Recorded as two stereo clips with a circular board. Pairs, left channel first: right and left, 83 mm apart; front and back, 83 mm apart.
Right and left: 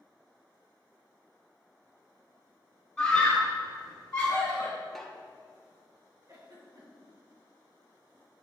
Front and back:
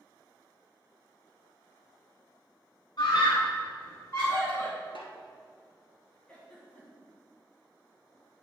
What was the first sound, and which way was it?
A scream, 15° right.